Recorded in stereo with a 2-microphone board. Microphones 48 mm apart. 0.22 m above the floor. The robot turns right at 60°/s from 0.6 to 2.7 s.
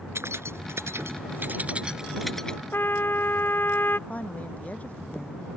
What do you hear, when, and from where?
0.1 s keys jangling: 70° right (ahead or behind); by 2.6 s 20° left (ahead or behind)
2.7 s a trumpet: 50° left (ahead or behind)
4.1 s a woman speaking: 35° left (ahead or behind)